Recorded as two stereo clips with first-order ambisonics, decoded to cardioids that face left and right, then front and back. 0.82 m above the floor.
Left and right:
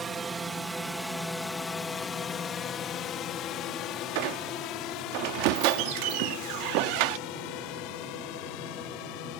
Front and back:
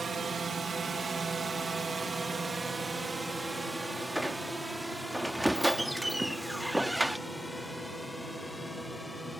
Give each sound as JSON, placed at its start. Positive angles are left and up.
{"t": 0.0, "sound": "a drone", "azimuth_deg": -135}
{"t": 4.2, "sound": "a squeak", "azimuth_deg": -95}